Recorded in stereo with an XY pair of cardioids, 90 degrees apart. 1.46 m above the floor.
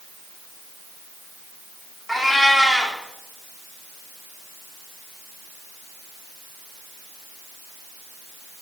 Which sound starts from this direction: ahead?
A cat meowing, at 2.1 s.